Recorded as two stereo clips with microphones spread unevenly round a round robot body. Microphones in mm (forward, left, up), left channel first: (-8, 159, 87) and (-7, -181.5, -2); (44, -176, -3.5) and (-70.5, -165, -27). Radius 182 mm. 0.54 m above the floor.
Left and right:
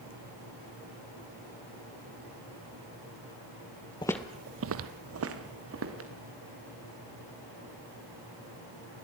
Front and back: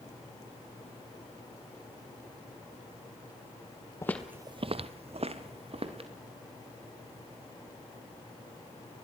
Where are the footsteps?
40° left, 0.7 m; by 6.1 s 145° right, 2.5 m.